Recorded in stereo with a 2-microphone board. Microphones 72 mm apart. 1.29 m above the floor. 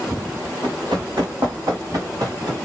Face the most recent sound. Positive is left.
turn(degrees=-50)  # may be behind; listen again after turning